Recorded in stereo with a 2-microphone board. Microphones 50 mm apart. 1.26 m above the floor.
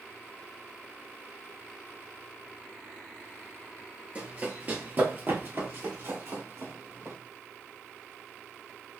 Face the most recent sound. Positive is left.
turn(degrees=-60)  # may be behind; listen again after turning